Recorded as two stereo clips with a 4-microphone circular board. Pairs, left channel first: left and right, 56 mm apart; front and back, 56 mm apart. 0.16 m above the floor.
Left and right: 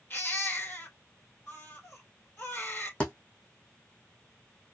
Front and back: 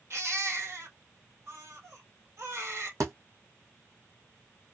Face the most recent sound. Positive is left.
turn(degrees=160)